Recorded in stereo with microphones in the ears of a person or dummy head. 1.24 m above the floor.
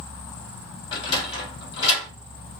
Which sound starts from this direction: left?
A sliding door, at 0.9 s.